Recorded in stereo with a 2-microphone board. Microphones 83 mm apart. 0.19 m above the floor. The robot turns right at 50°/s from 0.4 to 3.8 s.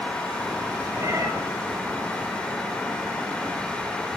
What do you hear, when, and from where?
1.0 s a cat meowing: 30° right (ahead or behind), 7.5 m; by 1.3 s 50° right (ahead or behind), 7.5 m